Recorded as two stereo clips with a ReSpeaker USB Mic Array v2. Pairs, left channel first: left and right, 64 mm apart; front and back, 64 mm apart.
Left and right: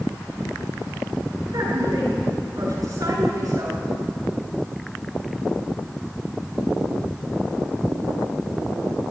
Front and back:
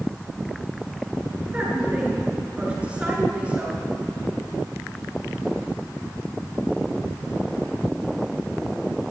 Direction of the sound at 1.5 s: 110° right.